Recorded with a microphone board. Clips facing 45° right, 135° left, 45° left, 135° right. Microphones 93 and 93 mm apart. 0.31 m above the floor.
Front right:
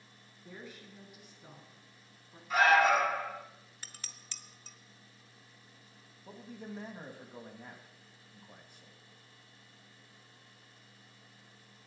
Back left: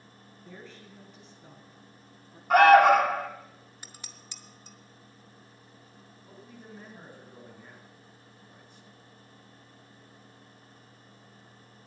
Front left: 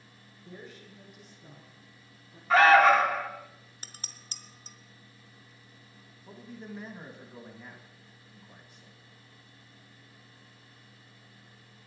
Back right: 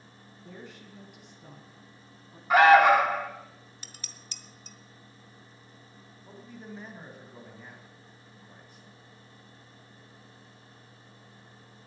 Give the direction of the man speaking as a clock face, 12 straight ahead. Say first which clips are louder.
Front right 3 dB, front left 1 dB; 2 o'clock.